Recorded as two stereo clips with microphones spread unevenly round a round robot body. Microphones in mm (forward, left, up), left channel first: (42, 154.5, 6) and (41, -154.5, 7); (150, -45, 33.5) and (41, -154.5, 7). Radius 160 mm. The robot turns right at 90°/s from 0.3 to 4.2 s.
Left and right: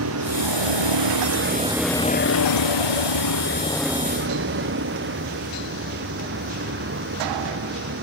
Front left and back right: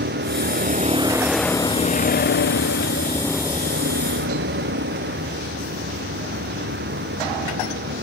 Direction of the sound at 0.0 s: 140° right.